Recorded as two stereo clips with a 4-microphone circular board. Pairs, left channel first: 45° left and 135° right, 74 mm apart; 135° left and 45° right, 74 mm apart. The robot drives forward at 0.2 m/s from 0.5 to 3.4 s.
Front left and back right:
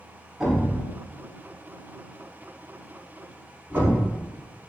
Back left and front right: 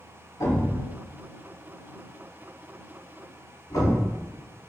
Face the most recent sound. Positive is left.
turn(degrees=165)